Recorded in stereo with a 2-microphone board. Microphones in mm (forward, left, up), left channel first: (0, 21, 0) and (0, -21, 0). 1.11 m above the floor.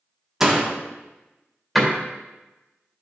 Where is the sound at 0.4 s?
10° right (ahead or behind), 1.4 m.